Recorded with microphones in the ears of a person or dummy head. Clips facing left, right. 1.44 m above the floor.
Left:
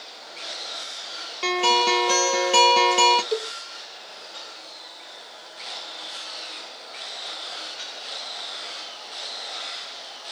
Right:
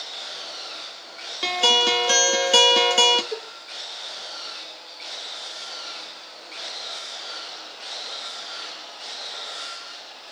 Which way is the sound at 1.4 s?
10° right (ahead or behind).